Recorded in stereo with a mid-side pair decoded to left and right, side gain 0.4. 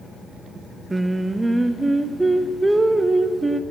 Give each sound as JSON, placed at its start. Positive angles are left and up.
{"t": 0.9, "sound": "singing", "azimuth_deg": -15, "distance_m": 0.7}